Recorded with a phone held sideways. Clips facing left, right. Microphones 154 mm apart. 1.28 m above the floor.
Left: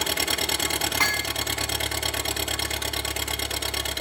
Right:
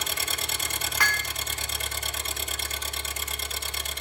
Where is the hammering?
25° left (ahead or behind), 1.3 m.